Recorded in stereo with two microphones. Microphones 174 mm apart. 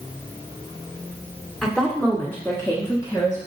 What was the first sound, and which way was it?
A woman speaking, 5° left (ahead or behind).